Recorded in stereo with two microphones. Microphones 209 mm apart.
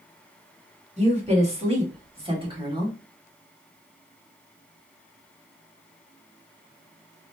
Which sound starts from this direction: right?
A woman speaking, at 1.0 s.